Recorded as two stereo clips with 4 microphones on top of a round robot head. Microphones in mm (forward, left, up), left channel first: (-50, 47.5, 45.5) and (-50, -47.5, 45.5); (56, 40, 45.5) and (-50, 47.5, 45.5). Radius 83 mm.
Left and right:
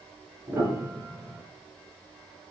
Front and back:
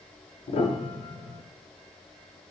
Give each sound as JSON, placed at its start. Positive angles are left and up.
{"t": 0.5, "sound": "a piano", "azimuth_deg": -25, "distance_m": 0.8}